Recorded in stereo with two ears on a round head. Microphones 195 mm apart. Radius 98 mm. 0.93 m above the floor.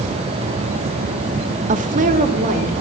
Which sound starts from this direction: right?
A woman speaking, at 1.7 s.